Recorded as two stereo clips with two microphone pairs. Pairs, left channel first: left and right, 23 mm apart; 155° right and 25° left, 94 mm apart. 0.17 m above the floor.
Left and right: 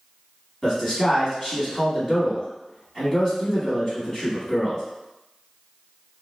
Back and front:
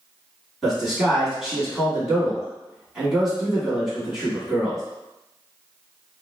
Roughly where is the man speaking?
Left.